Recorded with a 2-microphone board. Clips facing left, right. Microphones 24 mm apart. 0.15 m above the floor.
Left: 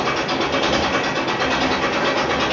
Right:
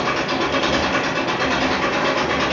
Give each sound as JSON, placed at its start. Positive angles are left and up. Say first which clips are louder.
{"t": 0.0, "sound": "an engine running", "louder": "even", "side_deg": 0, "distance_m": 1.6}